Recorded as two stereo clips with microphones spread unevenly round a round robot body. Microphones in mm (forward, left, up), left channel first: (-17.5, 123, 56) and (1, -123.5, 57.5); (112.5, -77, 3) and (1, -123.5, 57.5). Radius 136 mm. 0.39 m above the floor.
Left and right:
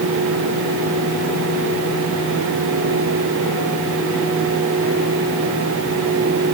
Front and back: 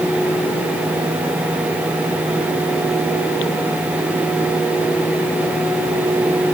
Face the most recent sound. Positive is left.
No sound to turn to.